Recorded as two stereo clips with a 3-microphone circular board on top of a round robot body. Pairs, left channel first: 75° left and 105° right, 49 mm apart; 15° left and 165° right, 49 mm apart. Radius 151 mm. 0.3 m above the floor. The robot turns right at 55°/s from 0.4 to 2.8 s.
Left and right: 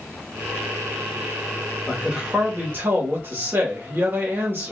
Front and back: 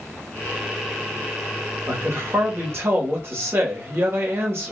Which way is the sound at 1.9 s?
170° left.